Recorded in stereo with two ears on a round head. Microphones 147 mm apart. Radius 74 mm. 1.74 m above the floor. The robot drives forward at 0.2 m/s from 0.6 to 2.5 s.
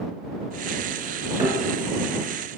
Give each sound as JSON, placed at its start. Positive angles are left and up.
{"t": 1.4, "sound": "a thud", "side_deg": -20, "distance_m": 1.7}